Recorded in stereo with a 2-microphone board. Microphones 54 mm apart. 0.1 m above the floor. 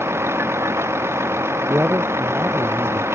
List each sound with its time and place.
0.0 s a vehicle: 50° right (ahead or behind)
1.7 s a man speaking: 45° right (ahead or behind)